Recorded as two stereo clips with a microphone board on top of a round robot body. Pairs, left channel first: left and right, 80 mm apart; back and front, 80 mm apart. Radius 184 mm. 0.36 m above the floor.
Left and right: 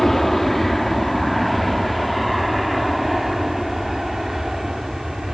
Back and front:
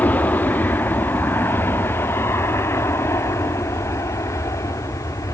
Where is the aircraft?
175° left; by 5.3 s 175° right.